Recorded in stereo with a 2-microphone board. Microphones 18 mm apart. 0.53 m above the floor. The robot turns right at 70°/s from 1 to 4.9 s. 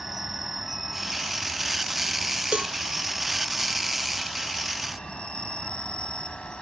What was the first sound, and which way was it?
An insect, 165° right.